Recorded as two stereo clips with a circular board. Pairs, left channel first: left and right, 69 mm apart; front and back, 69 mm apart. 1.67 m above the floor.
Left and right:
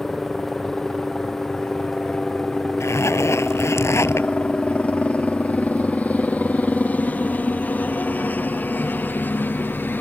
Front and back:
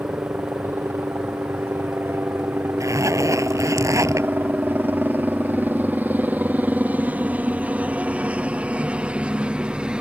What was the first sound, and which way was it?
A helicopter, 165° left.